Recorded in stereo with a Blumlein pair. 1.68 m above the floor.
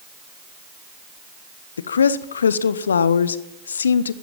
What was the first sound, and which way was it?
A woman speaking, 70° left.